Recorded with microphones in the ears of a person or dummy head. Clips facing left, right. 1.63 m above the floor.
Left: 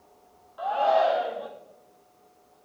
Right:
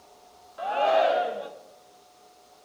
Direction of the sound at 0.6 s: 35° right (ahead or behind).